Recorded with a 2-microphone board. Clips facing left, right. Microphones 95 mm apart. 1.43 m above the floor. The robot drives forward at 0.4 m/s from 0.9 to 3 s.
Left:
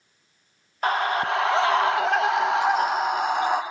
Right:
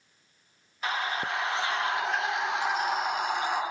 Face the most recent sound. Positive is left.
turn(degrees=50)  # may be behind; listen again after turning